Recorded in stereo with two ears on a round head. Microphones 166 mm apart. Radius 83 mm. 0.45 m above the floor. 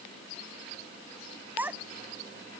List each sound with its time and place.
1.6 s a child speaking: 10° right (ahead or behind)